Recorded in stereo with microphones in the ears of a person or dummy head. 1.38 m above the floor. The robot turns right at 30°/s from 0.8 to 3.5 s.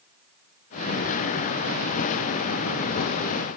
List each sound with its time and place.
Only background noise.